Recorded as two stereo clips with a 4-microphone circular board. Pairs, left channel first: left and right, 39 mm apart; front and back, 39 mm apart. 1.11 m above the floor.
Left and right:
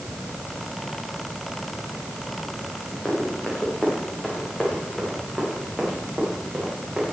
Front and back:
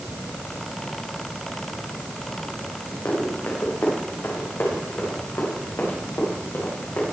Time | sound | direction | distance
3.0 | running footsteps | 25° left | 5.5 m